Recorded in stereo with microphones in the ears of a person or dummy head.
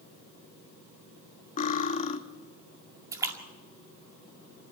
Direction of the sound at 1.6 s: 40° left (ahead or behind).